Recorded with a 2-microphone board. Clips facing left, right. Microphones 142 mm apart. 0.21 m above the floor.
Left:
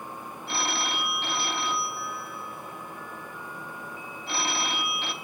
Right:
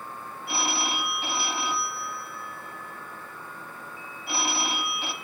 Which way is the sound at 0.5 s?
10° right (ahead or behind).